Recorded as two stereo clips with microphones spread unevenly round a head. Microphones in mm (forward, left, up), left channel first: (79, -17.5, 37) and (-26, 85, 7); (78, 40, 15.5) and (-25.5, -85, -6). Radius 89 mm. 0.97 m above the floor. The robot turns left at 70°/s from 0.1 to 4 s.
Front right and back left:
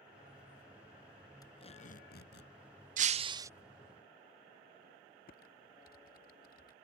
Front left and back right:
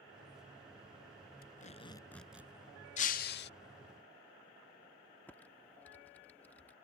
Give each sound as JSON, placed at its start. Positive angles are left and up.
{"t": 1.4, "sound": "tape being pulled", "azimuth_deg": 20}
{"t": 3.0, "sound": "breaking glass", "azimuth_deg": 100}
{"t": 5.3, "sound": "typing on a keyboard", "azimuth_deg": -30}